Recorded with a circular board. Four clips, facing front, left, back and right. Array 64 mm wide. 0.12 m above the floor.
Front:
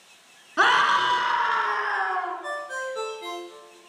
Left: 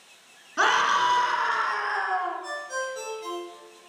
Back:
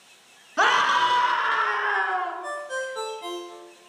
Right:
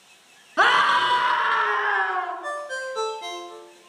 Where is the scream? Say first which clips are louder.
Right 3 dB, even; 60° right, 1.4 m; by 2.3 s 110° right, 1.8 m.